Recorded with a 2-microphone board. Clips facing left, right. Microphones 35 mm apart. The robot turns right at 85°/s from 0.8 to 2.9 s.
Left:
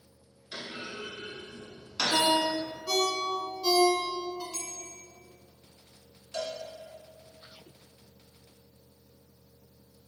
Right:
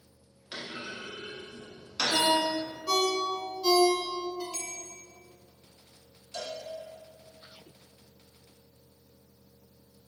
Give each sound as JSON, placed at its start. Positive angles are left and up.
{"t": 0.5, "sound": "a clunk", "side_deg": -30, "distance_m": 1.1}
{"t": 2.1, "sound": "a ringtone", "side_deg": 35, "distance_m": 0.7}
{"t": 4.5, "sound": "a bell", "side_deg": -25, "distance_m": 0.9}
{"t": 6.3, "sound": "a cowbell", "side_deg": 40, "distance_m": 0.6}